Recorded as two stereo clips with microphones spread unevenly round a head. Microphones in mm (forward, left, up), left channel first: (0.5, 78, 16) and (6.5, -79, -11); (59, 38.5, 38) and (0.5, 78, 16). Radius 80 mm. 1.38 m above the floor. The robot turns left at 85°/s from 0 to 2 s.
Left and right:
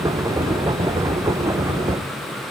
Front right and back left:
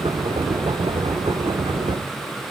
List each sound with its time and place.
Only background noise.